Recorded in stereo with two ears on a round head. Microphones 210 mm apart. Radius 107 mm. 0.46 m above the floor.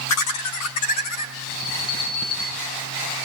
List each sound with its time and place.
0.1 s laughter: 75° left (ahead or behind), 5 m
1.5 s an alarm: 65° left (ahead or behind), 8.5 m